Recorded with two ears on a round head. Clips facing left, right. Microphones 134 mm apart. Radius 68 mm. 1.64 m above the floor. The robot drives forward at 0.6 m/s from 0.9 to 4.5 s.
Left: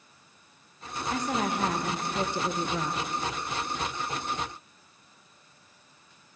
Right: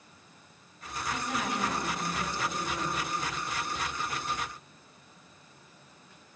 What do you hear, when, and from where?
1.1 s a woman speaking: 30° left (ahead or behind), 1.5 m; by 3.0 s 60° left (ahead or behind), 1.0 m